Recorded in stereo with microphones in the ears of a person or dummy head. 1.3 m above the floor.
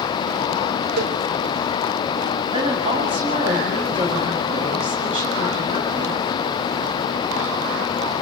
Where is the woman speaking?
30° right (ahead or behind), 9 m.